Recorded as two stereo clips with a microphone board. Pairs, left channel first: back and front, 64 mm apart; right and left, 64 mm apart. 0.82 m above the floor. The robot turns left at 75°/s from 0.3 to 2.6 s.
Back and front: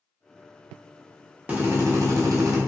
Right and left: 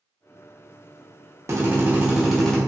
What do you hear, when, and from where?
1.5 s a drill: 60° left, 0.7 m; by 2.6 s 20° right, 0.7 m